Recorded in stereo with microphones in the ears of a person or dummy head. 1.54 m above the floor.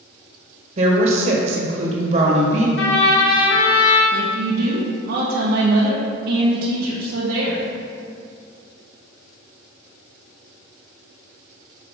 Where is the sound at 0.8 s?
45° right (ahead or behind), 1.3 m.